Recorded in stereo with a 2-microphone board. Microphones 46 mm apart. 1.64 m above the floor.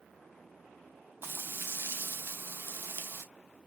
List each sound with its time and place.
1.2 s frying: 50° right (ahead or behind), 0.6 m